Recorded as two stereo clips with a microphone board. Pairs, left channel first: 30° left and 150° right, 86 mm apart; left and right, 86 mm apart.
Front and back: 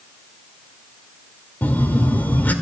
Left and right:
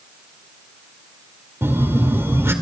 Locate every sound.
1.6 s a phone buzzing: 35° right, 1.6 m